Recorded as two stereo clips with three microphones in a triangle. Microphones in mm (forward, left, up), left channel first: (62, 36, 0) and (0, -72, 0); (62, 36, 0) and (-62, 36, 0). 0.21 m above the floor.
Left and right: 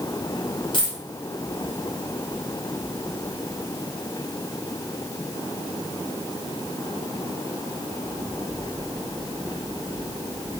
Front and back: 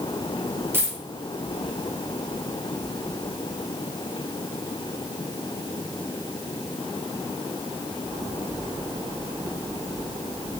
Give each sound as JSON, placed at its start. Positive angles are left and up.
{"t": 0.7, "sound": "a dropped coin", "azimuth_deg": 110, "distance_m": 1.1}